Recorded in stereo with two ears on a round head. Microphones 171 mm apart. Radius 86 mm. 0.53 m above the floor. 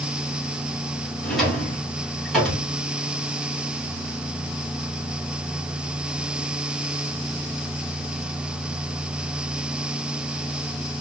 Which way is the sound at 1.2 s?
Centre (ahead or behind).